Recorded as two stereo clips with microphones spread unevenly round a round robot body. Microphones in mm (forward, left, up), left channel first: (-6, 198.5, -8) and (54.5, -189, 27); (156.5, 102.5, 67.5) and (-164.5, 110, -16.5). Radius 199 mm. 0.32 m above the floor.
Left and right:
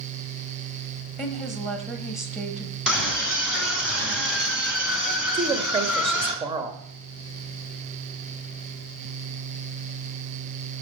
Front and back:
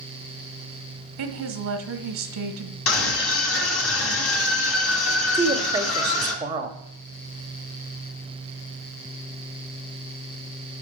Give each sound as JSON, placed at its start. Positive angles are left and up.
{"t": 1.2, "sound": "a woman speaking", "azimuth_deg": -175, "distance_m": 1.4}
{"t": 2.9, "sound": "a scream", "azimuth_deg": 10, "distance_m": 3.5}
{"t": 5.3, "sound": "a woman speaking", "azimuth_deg": -155, "distance_m": 0.9}